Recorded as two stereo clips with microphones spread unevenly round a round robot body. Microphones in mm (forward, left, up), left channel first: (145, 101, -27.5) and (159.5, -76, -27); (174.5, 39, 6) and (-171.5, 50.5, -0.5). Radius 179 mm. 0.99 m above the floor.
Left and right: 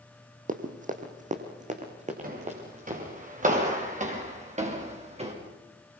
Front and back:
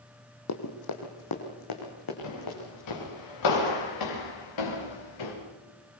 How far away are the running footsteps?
About 2.5 m.